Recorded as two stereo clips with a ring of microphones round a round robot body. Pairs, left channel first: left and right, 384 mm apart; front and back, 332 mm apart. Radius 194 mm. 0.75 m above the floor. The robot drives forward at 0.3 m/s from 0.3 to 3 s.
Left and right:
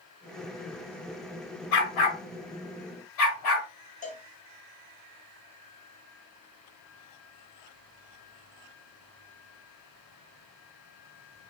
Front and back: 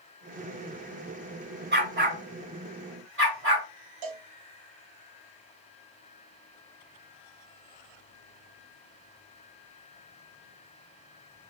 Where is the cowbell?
165° left, 1.0 m.